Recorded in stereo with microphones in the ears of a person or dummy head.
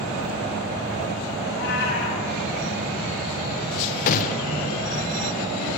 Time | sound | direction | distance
1.5 | a cat meowing | 60° left (ahead or behind) | 2.5 m
4.1 | a gunshot | 45° left (ahead or behind) | 0.5 m